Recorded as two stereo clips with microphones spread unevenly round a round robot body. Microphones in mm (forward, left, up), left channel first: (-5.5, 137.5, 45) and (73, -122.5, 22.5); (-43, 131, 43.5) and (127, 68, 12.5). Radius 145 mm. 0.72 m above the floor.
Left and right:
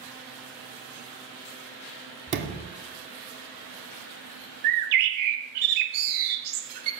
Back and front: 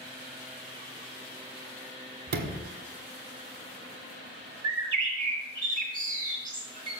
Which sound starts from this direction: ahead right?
A sliding door, at 2.3 s.